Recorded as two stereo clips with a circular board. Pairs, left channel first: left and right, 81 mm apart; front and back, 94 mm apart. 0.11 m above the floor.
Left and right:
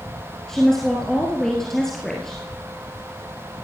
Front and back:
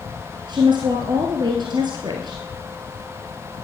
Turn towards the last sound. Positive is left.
turn(degrees=175)